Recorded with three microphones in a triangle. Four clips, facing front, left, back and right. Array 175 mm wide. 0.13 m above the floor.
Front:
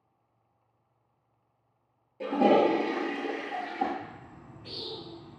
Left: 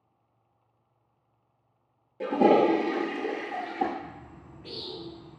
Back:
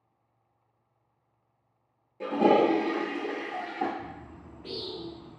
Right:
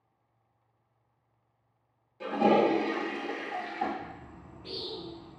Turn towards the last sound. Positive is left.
turn(degrees=180)